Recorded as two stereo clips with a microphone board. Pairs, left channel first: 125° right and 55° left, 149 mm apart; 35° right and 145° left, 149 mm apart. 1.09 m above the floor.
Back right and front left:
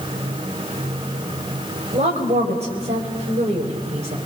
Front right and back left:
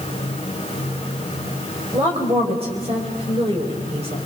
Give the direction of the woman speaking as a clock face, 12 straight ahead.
9 o'clock.